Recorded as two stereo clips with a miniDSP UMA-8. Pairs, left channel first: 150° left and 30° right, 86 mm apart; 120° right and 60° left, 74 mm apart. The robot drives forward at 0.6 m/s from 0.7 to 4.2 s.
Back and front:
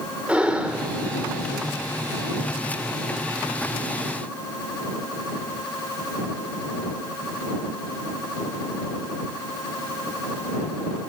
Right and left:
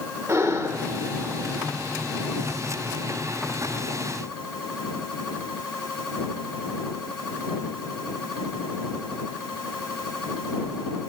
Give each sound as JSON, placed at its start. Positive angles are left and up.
{"t": 0.3, "sound": "breathing", "azimuth_deg": 40, "distance_m": 1.7}